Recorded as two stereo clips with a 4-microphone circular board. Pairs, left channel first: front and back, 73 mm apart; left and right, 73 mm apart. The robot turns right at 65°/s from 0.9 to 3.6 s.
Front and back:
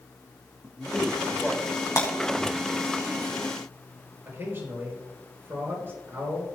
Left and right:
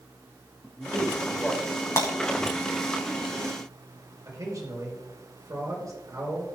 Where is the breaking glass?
45° left, 4 m; by 2.1 s 55° left, 4 m.